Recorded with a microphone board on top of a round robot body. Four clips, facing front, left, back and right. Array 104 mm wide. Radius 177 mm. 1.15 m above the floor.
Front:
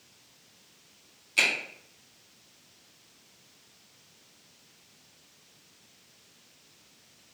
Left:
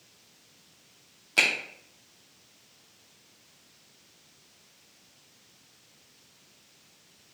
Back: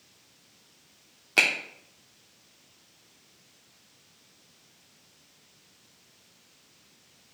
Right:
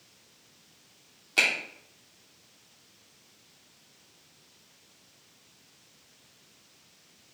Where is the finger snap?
175° left, 0.8 m.